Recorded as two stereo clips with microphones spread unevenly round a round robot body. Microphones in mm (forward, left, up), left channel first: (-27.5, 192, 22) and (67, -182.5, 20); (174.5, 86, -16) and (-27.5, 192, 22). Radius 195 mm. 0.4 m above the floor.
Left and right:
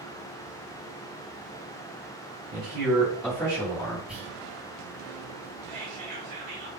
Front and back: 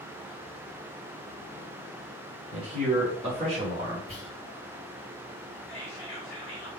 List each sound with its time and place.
2.5 s a man speaking: 150° right, 1.6 m; by 4.0 s 95° left, 1.2 m
4.1 s whispering: 10° left, 1.1 m
5.7 s whispering: 30° right, 1.3 m